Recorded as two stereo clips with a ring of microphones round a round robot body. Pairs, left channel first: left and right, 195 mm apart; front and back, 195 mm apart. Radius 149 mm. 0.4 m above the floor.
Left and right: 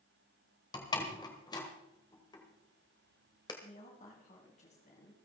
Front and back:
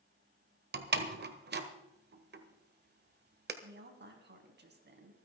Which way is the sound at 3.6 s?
150° left.